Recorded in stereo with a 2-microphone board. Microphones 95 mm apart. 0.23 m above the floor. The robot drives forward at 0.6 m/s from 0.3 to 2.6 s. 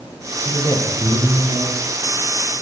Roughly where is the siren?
No siren in this recording.